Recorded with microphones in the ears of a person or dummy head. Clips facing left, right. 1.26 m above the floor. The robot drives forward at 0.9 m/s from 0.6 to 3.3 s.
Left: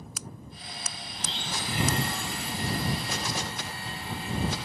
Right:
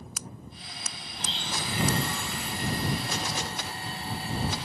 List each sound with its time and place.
1.1 s a blender: 60° right (ahead or behind), 1.1 m; by 4.7 s 35° right (ahead or behind), 1.7 m